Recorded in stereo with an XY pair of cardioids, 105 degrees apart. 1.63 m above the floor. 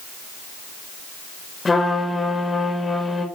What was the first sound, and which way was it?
A trumpet, 20° left.